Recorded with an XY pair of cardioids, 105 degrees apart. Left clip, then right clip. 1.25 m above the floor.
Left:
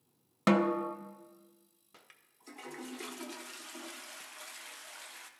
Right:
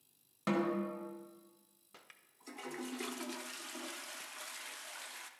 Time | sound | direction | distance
0.5 | a snare drum | 65° left | 0.6 m
1.9 | a toilet flushing | 5° right | 0.6 m